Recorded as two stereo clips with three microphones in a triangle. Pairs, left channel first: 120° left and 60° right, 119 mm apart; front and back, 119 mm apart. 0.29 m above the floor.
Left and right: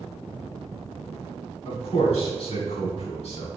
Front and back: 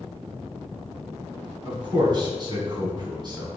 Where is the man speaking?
135° left, 2.5 m.